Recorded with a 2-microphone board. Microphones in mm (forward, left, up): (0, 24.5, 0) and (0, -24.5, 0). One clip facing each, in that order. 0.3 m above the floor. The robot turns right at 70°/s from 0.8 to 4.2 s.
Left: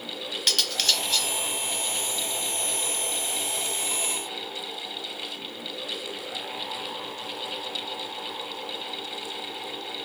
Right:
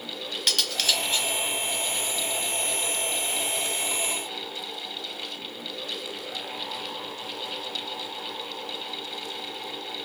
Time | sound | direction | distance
0.5 | cutlery clinking | straight behind | 1.0 m